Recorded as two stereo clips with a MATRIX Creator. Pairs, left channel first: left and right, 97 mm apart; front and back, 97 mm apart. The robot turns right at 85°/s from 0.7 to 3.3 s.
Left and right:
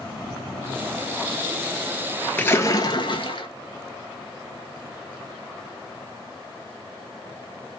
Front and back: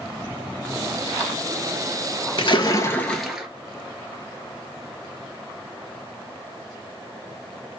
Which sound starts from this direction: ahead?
A splash, at 2.4 s.